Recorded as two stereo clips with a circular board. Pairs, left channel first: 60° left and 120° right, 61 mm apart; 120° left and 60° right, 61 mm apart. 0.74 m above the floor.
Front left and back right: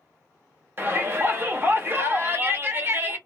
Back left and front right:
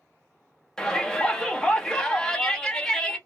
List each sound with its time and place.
0.8 s a shout: 160° right, 0.7 m